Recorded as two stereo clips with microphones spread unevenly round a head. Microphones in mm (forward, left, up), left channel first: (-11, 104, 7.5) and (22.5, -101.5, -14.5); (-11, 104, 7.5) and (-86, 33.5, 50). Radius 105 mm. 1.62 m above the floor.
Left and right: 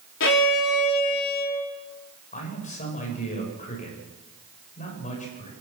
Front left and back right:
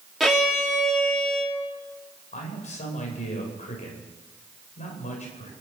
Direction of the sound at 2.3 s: 45° left.